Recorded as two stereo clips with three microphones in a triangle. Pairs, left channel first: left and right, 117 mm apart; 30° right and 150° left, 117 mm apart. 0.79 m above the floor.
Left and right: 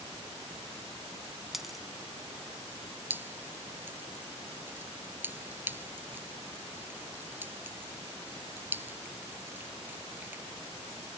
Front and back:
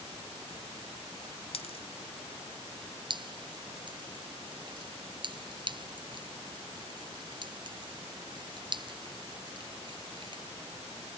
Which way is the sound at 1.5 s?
Straight ahead.